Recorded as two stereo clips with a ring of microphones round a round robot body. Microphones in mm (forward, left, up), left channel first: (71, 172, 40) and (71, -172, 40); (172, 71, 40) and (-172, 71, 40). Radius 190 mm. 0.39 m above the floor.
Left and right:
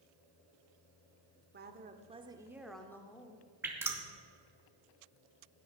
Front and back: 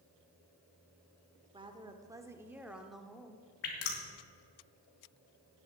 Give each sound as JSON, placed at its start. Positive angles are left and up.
{"t": 1.5, "sound": "a woman speaking", "azimuth_deg": -115, "distance_m": 1.2}
{"t": 3.6, "sound": "dripping", "azimuth_deg": -5, "distance_m": 3.0}